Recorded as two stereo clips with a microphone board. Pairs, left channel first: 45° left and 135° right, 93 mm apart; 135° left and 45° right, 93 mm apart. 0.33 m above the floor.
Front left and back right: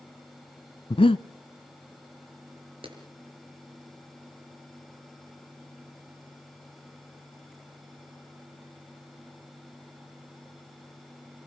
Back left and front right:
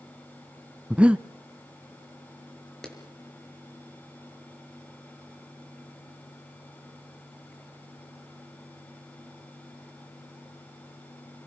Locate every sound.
0.9 s breathing: 35° left, 0.6 m
2.8 s a clap: 140° right, 4.5 m